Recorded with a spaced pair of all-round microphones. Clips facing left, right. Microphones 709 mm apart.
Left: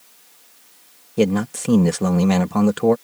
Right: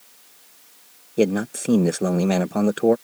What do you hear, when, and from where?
1.2 s a man speaking: 35° left (ahead or behind)